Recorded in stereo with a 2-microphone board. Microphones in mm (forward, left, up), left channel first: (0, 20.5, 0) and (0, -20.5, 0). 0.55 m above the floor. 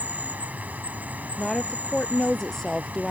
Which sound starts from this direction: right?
An insect, at 0.0 s.